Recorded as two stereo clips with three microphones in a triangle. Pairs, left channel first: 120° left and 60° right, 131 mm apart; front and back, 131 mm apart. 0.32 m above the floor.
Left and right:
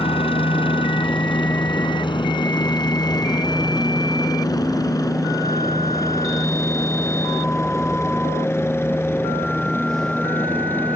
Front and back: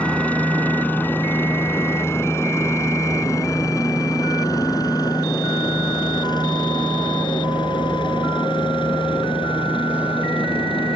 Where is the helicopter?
80° left; by 11.0 s 45° left.